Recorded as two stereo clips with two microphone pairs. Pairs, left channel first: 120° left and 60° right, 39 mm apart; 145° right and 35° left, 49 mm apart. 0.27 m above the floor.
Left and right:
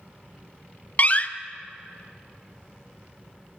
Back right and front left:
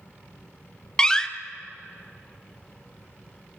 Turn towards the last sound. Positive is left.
turn(degrees=145)